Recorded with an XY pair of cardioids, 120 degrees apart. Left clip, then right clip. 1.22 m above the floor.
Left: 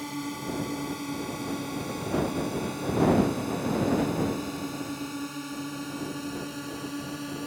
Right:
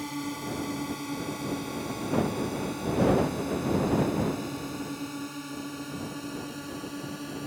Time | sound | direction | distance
0.0 | a drone | straight ahead | ?